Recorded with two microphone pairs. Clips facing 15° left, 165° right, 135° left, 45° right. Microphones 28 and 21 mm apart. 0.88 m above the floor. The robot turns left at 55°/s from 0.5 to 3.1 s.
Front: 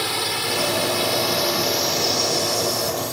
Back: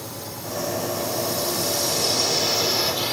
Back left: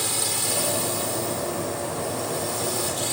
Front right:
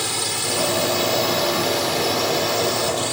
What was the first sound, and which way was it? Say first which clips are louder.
A drone: front 11 dB, front right 3 dB; 25° left.